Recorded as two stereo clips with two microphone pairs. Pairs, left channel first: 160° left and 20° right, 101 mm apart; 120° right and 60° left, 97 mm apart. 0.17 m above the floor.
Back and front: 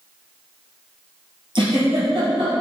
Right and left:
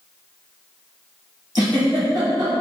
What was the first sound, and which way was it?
A giggle, 10° left.